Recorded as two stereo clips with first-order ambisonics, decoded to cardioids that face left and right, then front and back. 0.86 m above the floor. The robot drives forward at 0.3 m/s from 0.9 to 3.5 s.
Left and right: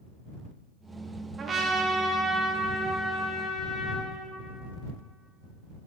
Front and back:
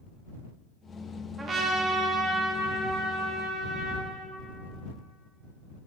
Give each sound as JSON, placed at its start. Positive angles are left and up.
{"t": 1.4, "sound": "a trumpet", "azimuth_deg": -150, "distance_m": 0.8}